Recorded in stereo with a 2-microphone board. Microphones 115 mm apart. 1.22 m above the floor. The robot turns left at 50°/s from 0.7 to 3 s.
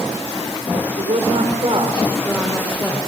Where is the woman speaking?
100° right, 3.5 m; by 3.0 s 160° left, 3.5 m.